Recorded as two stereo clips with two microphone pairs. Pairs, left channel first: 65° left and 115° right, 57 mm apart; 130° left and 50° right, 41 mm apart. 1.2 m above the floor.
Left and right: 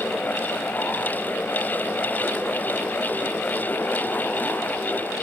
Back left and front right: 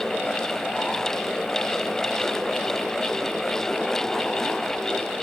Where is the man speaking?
No man speaking in this recording.